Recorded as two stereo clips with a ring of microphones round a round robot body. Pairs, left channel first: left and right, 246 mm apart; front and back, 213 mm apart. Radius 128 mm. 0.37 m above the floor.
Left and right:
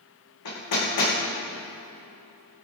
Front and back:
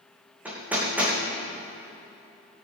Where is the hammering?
95° left, 7.5 m.